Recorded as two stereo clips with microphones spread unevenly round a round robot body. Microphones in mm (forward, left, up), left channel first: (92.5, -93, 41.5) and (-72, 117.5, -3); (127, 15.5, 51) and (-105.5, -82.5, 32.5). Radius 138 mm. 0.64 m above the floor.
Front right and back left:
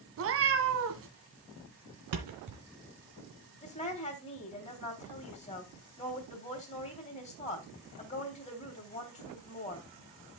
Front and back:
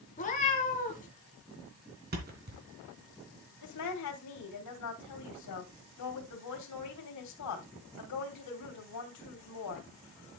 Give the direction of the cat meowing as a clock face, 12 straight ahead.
9 o'clock.